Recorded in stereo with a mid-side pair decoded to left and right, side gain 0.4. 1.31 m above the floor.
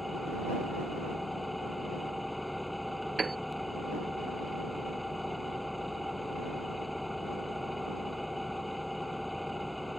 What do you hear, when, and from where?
0.0 s an engine running: 10° left
3.2 s a piano: 30° right